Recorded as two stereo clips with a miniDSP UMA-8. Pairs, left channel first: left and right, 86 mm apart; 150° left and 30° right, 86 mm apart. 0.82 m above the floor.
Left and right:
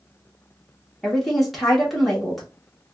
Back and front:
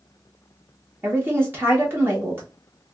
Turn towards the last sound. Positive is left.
turn(degrees=0)